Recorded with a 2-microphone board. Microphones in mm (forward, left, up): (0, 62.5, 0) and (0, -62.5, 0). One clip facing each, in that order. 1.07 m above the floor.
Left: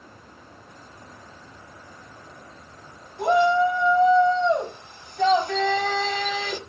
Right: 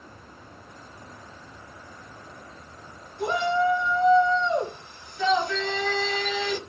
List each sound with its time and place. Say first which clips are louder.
3.2 s a shout: left 5 dB; 75° left (ahead or behind), 6.5 m; by 6.6 s 55° left (ahead or behind), 4.5 m